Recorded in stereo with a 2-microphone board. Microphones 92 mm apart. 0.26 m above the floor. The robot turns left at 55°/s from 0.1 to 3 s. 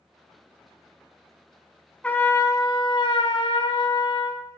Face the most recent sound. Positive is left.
turn(degrees=110)